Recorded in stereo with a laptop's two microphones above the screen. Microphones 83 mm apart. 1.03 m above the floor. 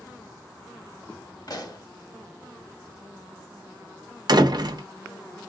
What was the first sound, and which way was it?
A pop, 50° left (ahead or behind).